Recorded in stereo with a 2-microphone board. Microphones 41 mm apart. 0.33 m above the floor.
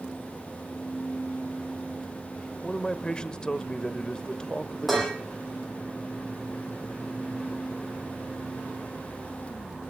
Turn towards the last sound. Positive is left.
turn(degrees=5)  # may be behind; listen again after turning